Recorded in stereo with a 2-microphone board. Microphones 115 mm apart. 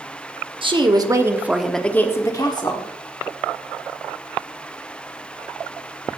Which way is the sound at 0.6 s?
50° right (ahead or behind).